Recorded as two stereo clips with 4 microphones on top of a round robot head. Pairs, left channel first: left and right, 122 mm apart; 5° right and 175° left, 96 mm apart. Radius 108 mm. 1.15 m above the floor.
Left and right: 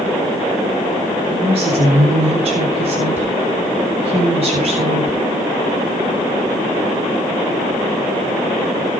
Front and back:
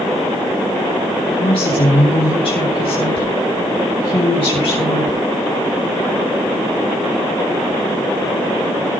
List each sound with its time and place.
1.3 s a woman speaking: 45° right, 8.5 m